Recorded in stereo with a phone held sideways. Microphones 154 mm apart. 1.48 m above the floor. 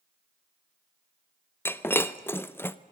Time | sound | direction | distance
1.6 | breaking glass | 15° left (ahead or behind) | 0.7 m